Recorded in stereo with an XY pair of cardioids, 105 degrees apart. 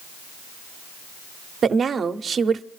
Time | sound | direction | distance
1.6 | a woman speaking | 45° right | 0.7 m